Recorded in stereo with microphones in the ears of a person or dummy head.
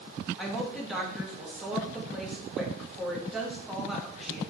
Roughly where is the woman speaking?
Centre.